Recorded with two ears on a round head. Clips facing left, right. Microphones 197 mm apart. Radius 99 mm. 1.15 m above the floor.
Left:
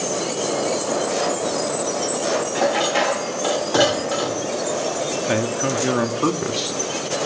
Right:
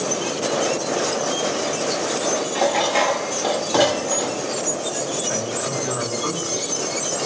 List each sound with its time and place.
2.5 s dishes clattering: 5° left (ahead or behind), 1.0 m
5.3 s a man speaking: 70° left (ahead or behind), 2.5 m